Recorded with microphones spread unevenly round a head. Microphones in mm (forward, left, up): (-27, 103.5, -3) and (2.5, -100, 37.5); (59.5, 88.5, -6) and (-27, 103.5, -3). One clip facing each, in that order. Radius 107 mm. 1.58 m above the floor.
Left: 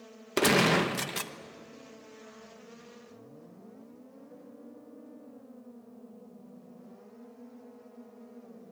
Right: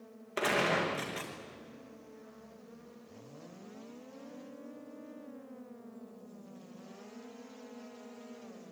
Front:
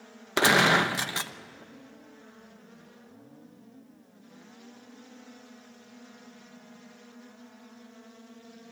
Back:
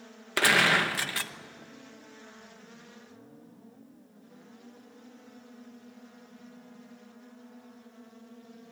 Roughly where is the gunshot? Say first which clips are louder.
Left 7 dB, front 3 dB; ahead left.